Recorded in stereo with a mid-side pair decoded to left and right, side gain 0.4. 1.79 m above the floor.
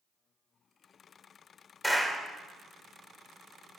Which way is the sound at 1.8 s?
5° left.